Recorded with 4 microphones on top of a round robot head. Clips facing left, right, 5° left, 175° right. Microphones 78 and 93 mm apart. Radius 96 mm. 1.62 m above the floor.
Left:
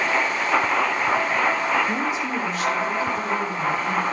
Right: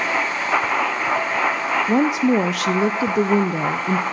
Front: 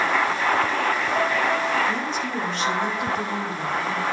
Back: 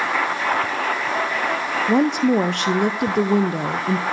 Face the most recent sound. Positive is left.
turn(degrees=-130)